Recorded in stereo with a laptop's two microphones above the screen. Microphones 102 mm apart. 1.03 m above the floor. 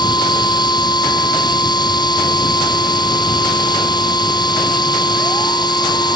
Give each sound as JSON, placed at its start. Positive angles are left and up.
{"t": 0.0, "sound": "a machine running", "side_deg": 45}